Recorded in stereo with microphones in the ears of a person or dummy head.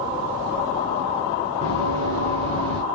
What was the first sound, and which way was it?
Running footsteps, 40° right (ahead or behind).